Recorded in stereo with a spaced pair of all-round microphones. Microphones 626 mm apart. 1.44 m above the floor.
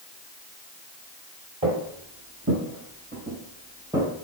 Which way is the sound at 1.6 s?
30° right (ahead or behind).